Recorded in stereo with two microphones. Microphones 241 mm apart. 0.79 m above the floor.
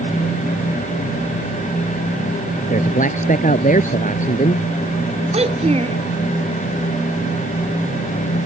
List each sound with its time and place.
2.7 s a man speaking: 35° left (ahead or behind)
5.3 s a child speaking: 25° right (ahead or behind)